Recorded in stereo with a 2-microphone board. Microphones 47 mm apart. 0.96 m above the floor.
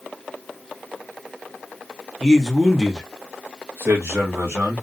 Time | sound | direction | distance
2.2 | a man speaking | 15° left (ahead or behind) | 0.9 m